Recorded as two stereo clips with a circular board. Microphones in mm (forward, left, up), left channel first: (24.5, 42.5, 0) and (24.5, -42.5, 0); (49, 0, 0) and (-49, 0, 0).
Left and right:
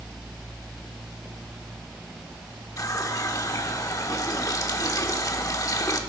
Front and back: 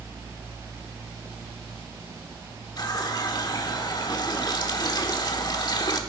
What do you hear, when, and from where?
2.8 s a running tap: 45° left, 1.2 m